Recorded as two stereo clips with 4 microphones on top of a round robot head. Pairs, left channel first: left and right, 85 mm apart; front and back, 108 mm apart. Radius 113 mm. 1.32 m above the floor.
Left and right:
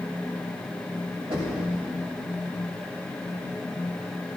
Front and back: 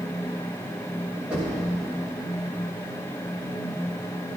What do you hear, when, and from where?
1.3 s knocking: 100° right, 5.5 m